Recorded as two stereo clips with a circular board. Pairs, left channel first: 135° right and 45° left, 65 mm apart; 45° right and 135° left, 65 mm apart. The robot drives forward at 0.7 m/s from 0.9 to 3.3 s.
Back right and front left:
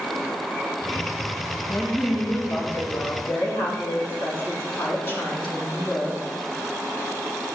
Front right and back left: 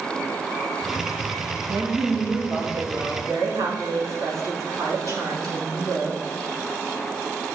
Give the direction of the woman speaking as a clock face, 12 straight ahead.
6 o'clock.